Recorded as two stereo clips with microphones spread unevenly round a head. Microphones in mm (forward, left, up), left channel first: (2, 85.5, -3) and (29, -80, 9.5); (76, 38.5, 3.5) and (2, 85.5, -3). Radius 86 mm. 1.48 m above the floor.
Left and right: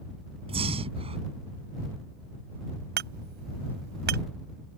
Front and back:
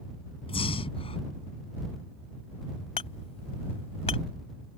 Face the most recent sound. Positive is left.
turn(degrees=-55)